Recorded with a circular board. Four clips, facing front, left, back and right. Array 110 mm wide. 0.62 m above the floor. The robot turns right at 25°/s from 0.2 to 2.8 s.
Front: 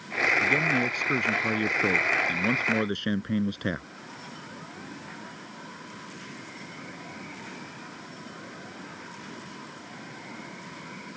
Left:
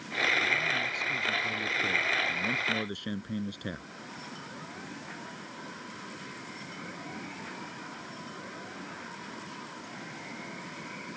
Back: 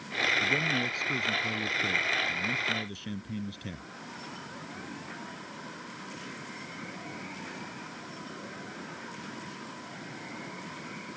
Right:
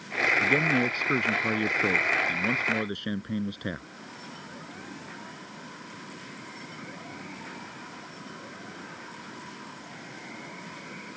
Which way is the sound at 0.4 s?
75° right.